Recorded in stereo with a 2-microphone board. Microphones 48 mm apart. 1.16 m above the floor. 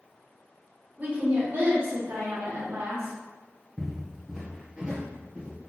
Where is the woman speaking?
45° right (ahead or behind), 1.0 m; by 3.1 s 85° right, 1.7 m.